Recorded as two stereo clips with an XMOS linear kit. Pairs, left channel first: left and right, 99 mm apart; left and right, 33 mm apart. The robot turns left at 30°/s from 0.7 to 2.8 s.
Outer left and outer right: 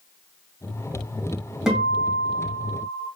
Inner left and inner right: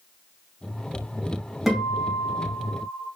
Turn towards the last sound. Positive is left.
turn(degrees=-40)